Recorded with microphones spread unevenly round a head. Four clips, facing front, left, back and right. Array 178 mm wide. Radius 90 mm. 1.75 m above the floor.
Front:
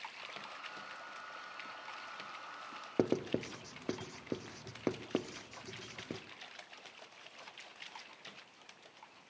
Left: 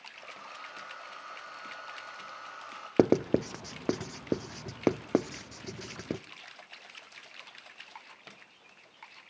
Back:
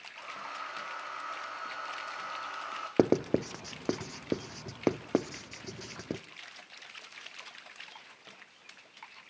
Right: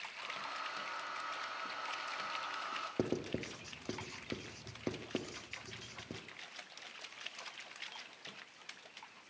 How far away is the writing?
About 0.6 m.